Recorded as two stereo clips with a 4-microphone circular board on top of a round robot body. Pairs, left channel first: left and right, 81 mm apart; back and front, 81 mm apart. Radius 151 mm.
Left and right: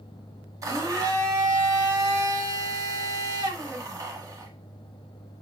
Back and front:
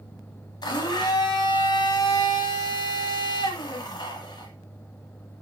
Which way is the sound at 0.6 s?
140° right.